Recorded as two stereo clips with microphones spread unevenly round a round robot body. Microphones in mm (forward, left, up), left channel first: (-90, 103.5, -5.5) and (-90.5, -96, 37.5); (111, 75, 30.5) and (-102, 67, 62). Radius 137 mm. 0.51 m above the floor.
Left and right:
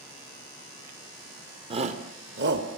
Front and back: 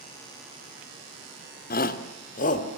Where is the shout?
15° right, 1.6 m; by 2.8 s 50° right, 2.5 m.